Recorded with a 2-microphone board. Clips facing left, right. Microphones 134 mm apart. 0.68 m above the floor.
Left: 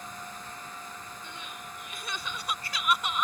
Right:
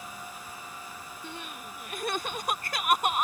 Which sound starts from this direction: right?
Crying, at 1.2 s.